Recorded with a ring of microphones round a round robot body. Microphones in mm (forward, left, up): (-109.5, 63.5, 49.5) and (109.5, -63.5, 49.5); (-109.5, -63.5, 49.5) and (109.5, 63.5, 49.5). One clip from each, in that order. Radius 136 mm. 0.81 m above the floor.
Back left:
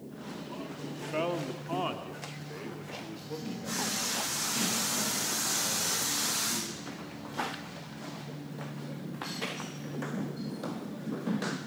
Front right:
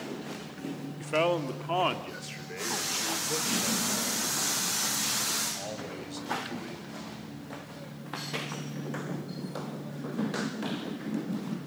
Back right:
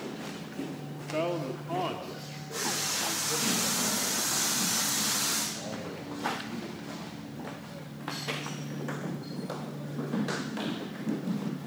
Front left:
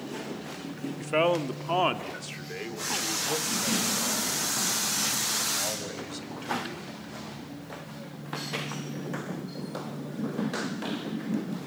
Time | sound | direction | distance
1.0 | a man speaking | 20° left | 1.7 m